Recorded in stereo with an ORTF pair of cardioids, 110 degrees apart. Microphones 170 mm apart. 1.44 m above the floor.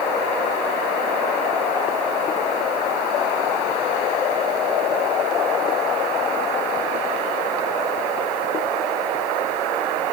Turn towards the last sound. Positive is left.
No sound to turn to.